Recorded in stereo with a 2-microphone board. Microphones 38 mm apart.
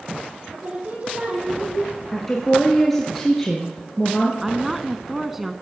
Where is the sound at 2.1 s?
10° left (ahead or behind), 2.0 m.